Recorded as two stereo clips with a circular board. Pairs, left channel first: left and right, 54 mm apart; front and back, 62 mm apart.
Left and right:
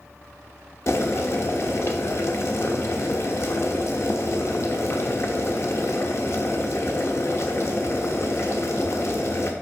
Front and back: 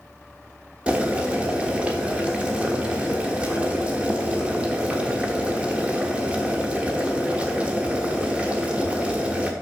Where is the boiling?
110° left, 1.2 m.